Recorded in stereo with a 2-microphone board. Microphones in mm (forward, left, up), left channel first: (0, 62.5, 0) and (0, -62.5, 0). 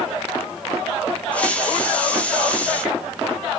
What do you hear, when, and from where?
1.3 s a hiss: 10° left (ahead or behind), 0.7 m